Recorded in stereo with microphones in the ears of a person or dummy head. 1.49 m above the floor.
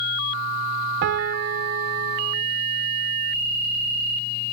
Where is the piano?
40° right (ahead or behind), 0.6 m.